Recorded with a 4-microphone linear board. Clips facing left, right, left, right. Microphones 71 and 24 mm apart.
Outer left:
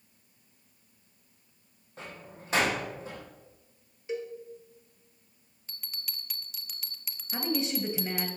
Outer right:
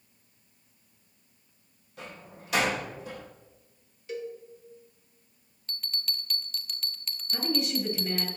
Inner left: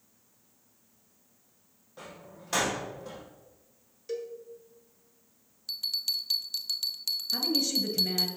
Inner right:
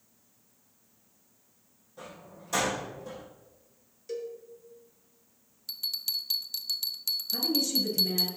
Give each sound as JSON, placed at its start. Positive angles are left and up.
{"t": 2.0, "sound": "a door slam", "side_deg": 30, "distance_m": 4.0}
{"t": 4.1, "sound": "a cowbell", "side_deg": 20, "distance_m": 1.5}
{"t": 5.7, "sound": "a bell", "side_deg": 5, "distance_m": 0.6}
{"t": 7.3, "sound": "a woman speaking", "side_deg": 30, "distance_m": 1.8}